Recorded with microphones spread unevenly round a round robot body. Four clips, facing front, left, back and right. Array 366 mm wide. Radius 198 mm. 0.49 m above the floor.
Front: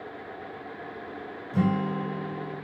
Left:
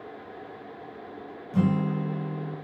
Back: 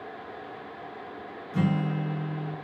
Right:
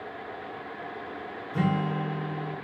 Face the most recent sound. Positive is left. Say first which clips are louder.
# left 2 dB, front 1 dB
turn(degrees=75)